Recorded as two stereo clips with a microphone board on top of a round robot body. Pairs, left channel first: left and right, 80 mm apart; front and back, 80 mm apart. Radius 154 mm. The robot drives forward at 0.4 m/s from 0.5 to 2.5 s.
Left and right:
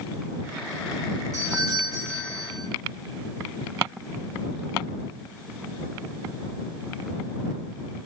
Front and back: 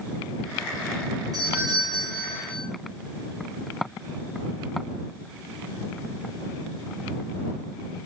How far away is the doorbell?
About 7 m.